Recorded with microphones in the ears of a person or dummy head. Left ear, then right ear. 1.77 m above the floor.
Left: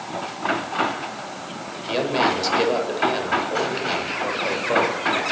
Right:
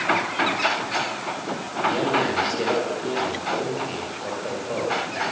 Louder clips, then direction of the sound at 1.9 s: Left 2 dB; 50° left (ahead or behind).